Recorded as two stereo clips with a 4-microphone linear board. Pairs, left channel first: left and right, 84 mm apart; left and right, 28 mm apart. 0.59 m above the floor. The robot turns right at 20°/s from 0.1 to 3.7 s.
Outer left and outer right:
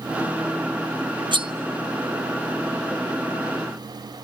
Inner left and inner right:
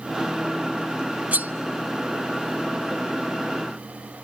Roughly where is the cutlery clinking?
Right.